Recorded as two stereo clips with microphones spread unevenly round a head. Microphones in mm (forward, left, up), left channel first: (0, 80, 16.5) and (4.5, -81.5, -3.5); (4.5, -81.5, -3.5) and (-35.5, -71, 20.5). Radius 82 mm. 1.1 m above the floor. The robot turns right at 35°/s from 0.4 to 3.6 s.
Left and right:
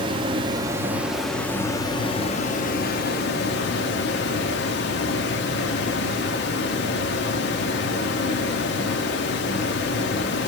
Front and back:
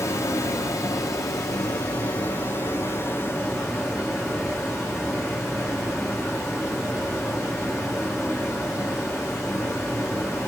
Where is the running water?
25° right, 0.8 m; by 10.5 s 90° left, 0.8 m.